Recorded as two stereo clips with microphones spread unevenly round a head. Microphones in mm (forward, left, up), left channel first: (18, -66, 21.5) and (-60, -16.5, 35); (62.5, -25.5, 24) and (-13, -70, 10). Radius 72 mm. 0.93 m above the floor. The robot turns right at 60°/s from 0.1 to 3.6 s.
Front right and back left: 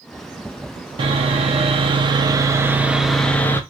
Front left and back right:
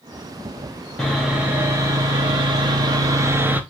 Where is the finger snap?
No finger snap in this recording.